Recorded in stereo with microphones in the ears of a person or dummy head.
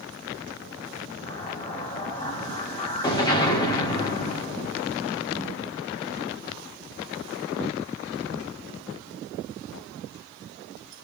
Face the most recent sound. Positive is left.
turn(degrees=20)  # may be behind; listen again after turning